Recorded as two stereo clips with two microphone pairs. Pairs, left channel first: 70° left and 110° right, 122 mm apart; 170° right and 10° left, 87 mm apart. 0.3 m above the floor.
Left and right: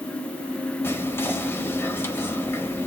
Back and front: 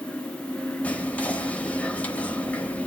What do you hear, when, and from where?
0.8 s whispering: 130° left, 1.0 m